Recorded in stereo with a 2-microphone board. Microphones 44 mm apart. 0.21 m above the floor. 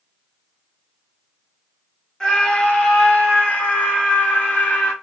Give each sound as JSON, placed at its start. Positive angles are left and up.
{"t": 2.2, "sound": "a scream", "side_deg": 20, "distance_m": 1.2}